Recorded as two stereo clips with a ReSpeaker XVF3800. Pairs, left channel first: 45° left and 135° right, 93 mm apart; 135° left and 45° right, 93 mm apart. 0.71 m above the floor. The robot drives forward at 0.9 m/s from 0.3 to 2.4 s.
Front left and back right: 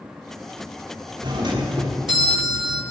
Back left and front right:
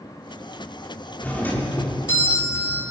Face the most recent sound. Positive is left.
turn(degrees=-165)